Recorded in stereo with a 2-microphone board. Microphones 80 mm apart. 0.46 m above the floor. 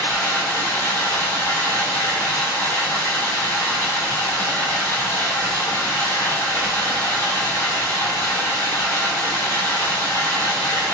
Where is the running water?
30° left (ahead or behind), 2 m.